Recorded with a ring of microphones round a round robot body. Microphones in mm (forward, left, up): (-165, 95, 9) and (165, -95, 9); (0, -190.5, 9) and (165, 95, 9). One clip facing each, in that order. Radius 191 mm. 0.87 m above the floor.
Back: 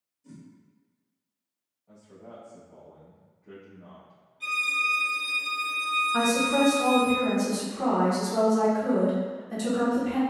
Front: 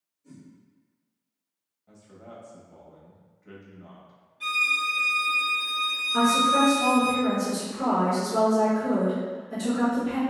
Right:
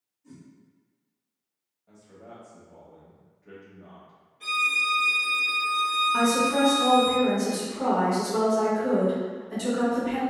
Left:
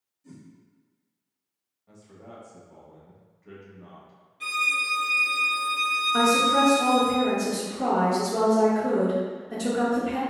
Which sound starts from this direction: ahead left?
A violin, at 4.4 s.